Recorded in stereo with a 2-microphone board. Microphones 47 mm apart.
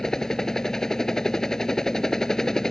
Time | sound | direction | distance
0.0 | a helicopter | 10° left (ahead or behind) | ?